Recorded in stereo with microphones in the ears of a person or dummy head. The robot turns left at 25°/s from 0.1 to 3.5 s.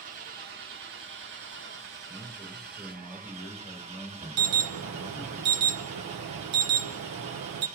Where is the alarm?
60° right (ahead or behind), 0.7 m.